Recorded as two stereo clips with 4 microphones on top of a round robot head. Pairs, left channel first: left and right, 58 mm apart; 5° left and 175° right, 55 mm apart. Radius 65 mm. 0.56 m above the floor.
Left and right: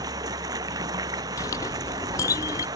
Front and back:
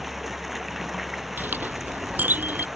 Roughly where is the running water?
Right.